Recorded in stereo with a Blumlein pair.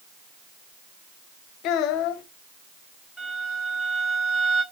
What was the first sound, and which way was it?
A child speaking, 40° left.